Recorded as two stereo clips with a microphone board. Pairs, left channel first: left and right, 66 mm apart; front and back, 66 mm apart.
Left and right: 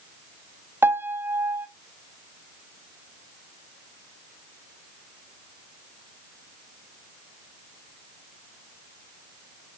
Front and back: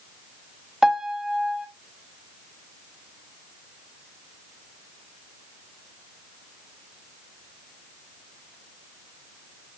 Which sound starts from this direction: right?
A piano, at 0.8 s.